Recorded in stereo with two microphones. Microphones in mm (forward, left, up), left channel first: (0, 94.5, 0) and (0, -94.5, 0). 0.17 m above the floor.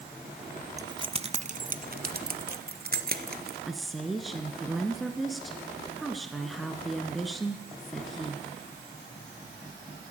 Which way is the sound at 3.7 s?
Centre (ahead or behind).